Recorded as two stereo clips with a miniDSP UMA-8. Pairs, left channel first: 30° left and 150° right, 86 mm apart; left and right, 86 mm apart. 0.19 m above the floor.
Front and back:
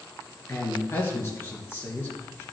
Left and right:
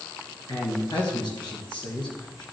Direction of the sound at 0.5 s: 90° left.